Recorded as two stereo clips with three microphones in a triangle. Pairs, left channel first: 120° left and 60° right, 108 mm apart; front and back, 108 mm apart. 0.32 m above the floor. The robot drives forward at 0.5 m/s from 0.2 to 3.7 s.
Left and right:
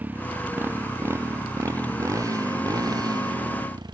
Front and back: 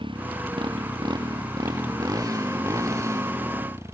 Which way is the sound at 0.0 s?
135° right.